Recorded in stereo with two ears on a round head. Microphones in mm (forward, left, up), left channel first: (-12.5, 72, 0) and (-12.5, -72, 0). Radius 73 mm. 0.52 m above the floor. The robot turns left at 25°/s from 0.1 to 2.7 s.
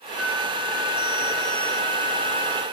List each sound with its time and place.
0.2 s a flute: 175° right, 1.8 m; by 2.6 s 125° left, 1.8 m